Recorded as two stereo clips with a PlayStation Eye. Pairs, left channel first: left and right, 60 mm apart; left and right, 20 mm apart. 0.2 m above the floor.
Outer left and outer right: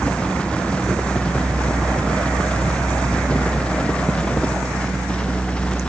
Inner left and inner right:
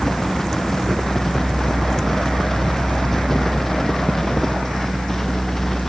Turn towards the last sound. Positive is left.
No sound to turn to.